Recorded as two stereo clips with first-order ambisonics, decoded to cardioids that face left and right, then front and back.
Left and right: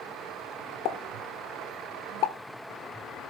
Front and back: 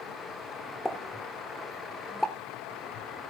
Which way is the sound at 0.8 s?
85° left.